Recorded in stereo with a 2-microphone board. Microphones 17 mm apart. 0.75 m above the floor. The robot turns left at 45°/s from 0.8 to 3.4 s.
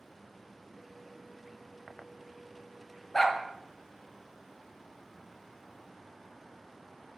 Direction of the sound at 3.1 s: 20° left (ahead or behind).